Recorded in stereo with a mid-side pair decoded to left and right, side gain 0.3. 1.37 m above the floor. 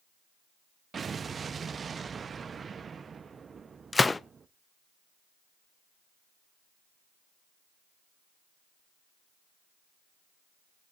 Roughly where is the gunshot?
Ahead left.